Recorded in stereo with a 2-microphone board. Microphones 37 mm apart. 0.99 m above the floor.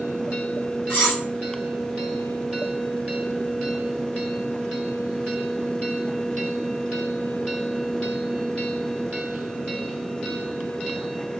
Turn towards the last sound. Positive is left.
turn(degrees=75)  # may be behind; listen again after turning